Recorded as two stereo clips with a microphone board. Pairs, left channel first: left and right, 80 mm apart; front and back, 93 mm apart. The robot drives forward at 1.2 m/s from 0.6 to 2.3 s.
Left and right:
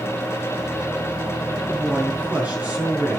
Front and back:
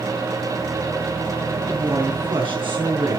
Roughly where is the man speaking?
Behind.